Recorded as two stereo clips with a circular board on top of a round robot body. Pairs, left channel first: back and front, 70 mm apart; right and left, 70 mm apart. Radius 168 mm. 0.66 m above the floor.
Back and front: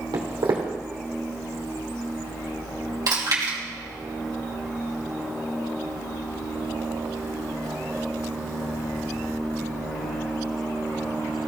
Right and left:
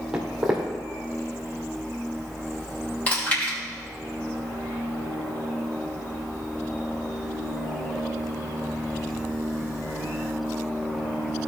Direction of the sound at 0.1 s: 5° left.